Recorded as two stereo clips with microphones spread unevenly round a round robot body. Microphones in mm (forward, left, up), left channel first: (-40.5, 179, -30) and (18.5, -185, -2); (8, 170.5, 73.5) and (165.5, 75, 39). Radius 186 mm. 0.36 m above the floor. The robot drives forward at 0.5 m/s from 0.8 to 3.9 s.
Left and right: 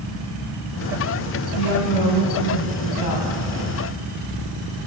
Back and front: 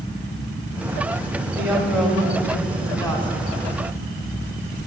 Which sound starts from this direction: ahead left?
A woman speaking, at 1.6 s.